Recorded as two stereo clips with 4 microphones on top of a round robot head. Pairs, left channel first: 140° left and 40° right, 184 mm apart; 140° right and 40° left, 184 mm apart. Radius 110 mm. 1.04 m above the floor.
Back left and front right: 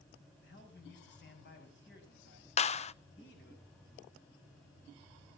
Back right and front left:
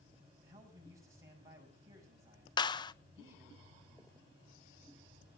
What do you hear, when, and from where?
0.4 s a man speaking: 115° left, 6.5 m
2.6 s a clap: 170° left, 0.6 m